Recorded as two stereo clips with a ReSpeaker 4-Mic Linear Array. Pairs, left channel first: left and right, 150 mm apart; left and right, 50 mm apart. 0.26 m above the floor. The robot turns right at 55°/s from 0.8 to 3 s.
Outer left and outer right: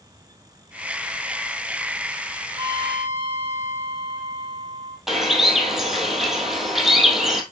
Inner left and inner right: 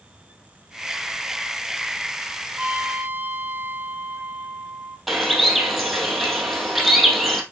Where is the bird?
Centre (ahead or behind), 1.6 m.